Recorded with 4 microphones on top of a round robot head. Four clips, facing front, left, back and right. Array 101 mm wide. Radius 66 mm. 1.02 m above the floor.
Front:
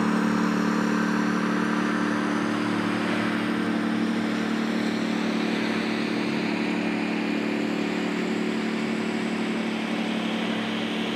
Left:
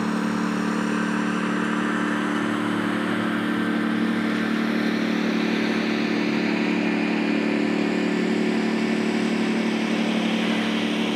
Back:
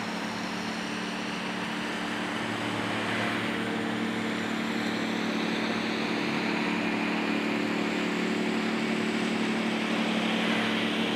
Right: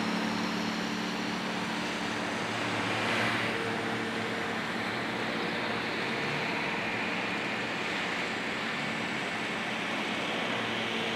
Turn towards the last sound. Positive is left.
turn(degrees=85)